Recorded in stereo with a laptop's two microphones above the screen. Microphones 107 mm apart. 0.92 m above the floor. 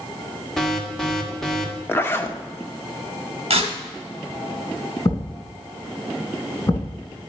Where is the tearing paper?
65° right (ahead or behind), 1.9 m.